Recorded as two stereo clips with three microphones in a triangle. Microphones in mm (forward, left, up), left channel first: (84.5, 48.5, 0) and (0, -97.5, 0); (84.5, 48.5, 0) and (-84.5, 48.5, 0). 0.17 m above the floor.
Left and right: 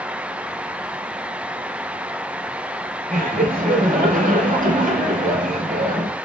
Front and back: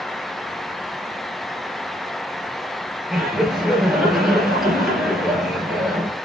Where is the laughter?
90° right, 3.5 m.